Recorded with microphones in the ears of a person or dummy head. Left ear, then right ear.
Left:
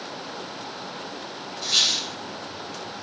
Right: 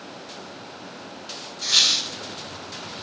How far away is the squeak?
About 1.2 m.